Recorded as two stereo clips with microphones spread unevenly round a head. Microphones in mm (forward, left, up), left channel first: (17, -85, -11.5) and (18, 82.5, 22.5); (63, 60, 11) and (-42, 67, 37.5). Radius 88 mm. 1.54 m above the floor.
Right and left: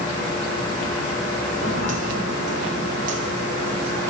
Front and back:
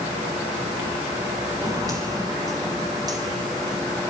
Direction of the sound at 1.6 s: 130° left.